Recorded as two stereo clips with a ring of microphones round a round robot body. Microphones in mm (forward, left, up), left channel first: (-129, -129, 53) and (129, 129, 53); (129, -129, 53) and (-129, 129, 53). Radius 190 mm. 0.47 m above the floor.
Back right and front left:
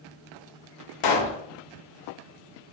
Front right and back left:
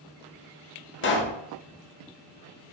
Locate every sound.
1.0 s a pop: 105° right, 0.8 m